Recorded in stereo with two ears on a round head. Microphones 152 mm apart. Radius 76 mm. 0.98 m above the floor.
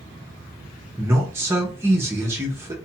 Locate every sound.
1.0 s a man speaking: 15° right (ahead or behind), 0.7 m